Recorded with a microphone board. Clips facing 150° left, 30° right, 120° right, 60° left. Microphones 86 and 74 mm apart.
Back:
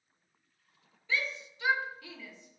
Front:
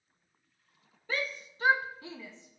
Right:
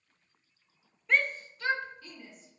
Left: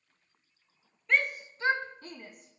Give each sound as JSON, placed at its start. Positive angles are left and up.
{"t": 1.1, "sound": "a shout", "azimuth_deg": -30, "distance_m": 0.6}